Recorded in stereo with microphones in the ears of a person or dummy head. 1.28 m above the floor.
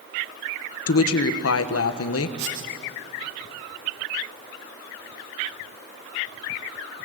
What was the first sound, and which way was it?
A woman speaking, 70° left (ahead or behind).